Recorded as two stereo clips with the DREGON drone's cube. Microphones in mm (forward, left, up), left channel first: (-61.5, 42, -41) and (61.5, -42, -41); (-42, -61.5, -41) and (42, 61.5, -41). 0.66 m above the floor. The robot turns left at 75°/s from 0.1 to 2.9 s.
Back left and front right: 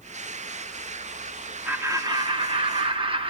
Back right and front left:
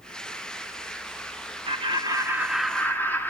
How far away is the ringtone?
I don't hear a ringtone.